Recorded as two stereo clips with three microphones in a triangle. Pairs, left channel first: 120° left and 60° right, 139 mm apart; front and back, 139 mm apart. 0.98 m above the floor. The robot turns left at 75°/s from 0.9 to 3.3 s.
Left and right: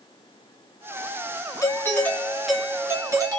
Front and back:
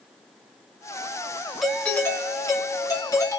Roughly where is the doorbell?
Left.